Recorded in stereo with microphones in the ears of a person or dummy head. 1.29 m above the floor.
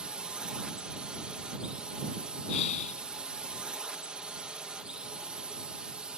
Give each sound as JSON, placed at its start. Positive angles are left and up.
{"t": 0.0, "sound": "a drone", "side_deg": -5}
{"t": 2.5, "sound": "breathing", "side_deg": 35}